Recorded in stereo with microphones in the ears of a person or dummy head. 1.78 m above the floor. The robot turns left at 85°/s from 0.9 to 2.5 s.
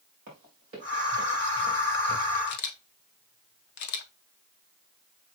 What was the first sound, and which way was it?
Running footsteps, 45° right (ahead or behind).